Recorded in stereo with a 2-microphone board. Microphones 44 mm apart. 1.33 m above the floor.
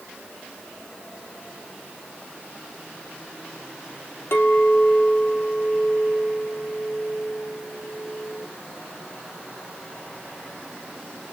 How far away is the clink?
About 1.8 m.